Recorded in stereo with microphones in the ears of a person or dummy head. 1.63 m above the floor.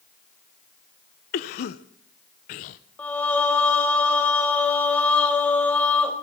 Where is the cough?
45° left (ahead or behind), 0.8 m.